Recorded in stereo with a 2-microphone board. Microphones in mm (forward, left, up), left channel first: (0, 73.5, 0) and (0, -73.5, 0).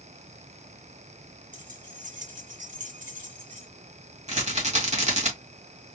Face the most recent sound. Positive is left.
turn(degrees=-55)  # may be behind; listen again after turning